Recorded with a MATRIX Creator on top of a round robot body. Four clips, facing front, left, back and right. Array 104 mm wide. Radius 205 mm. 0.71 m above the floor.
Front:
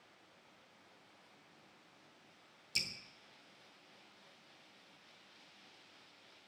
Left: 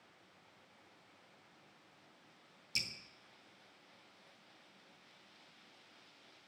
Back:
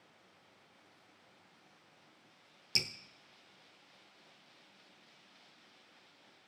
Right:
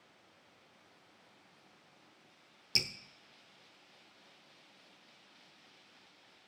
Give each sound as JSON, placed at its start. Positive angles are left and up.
{"t": 2.8, "sound": "dripping", "azimuth_deg": -130, "distance_m": 1.0}